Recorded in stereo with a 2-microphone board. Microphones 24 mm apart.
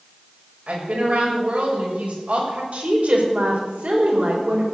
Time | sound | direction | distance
0.7 | a woman speaking | 75° right (ahead or behind) | 6.5 m
2.7 | a woman speaking | 70° right (ahead or behind) | 5 m